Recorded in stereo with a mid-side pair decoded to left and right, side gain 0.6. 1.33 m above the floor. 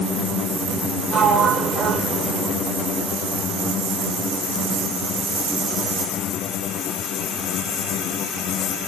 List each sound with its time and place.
1.1 s a sliding door: 45° right, 0.6 m